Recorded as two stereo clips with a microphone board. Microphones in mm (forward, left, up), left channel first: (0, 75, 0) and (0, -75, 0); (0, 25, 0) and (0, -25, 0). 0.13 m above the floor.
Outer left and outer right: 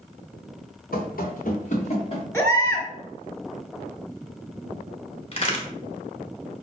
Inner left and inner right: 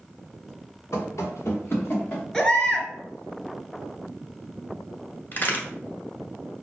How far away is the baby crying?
About 1.0 m.